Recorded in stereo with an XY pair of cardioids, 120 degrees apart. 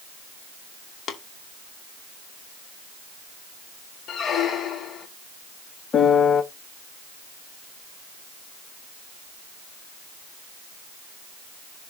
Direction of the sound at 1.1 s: 70° left.